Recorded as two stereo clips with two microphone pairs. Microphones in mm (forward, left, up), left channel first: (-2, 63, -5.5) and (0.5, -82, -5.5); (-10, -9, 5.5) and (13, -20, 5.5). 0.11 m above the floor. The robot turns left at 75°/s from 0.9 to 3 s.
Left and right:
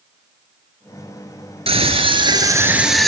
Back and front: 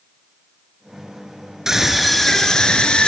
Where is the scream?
80° right, 2 m; by 3.1 s straight behind, 2 m.